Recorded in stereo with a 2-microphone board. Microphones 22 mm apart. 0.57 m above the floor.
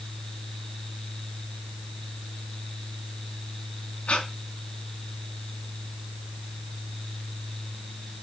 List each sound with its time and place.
4.1 s breathing: 65° left (ahead or behind), 2.5 m